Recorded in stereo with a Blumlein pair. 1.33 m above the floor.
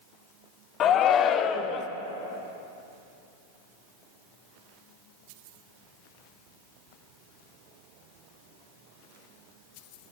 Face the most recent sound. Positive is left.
turn(degrees=30)